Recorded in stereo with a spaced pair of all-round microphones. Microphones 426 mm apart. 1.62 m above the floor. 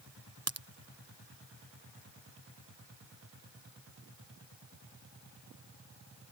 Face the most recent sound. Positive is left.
turn(degrees=-35)  # may be behind; listen again after turning